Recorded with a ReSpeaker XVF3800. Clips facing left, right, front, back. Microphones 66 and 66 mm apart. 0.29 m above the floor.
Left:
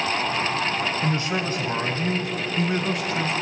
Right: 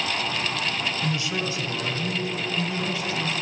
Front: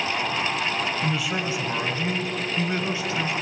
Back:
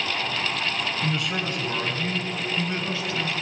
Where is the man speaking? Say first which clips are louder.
Left 3 dB, front 1 dB; 90° left, 1.7 m; by 3.3 s 65° left, 4.5 m.